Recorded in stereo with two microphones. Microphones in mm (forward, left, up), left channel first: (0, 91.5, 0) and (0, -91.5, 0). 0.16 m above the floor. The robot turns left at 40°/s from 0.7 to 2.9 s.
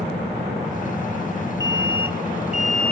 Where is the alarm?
95° right; by 2.9 s 145° right.